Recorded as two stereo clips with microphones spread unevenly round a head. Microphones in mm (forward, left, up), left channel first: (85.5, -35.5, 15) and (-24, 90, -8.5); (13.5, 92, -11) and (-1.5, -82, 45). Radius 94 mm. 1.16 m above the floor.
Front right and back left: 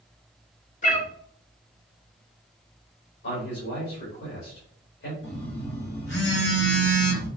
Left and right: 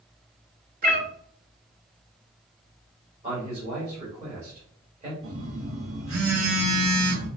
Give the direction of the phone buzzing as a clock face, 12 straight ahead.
3 o'clock.